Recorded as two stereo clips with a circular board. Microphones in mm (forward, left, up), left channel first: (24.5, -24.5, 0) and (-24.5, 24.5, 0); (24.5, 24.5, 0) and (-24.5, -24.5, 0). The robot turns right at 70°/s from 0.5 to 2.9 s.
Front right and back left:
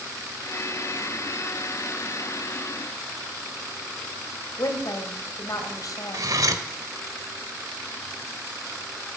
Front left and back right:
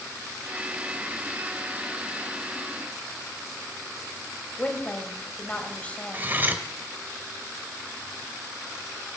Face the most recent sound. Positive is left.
turn(degrees=165)